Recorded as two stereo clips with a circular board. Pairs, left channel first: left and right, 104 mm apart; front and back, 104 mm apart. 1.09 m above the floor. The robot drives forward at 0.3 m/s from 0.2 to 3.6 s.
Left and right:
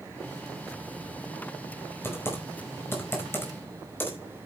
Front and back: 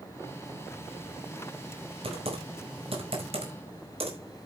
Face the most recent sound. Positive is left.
turn(degrees=160)